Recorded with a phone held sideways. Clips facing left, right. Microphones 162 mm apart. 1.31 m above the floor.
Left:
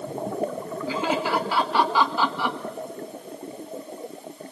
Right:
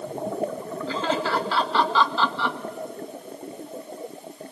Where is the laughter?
10° left (ahead or behind), 1.6 m.